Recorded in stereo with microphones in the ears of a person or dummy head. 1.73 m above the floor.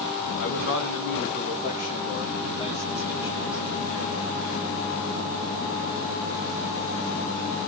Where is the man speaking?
70° left (ahead or behind), 2.5 m; by 3.6 s 25° left (ahead or behind), 3 m.